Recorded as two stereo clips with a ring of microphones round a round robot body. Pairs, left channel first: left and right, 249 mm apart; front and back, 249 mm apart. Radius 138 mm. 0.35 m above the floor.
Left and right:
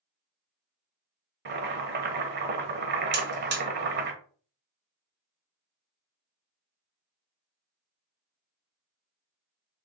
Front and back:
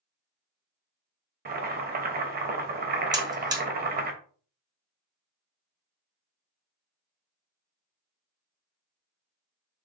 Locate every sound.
1.4 s boiling: 130° right, 1.1 m
3.1 s a buzzer: 110° right, 1.4 m